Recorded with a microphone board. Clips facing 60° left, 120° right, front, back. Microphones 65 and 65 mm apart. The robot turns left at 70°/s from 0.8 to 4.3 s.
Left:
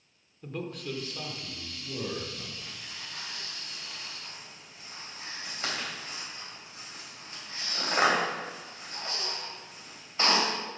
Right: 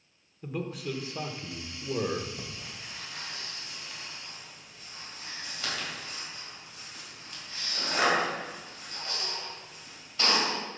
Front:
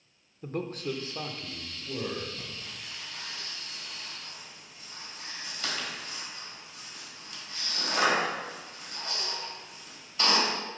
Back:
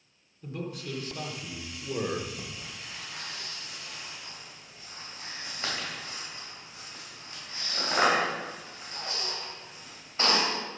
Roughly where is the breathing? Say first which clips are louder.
Right 1 dB, back 1 dB; right.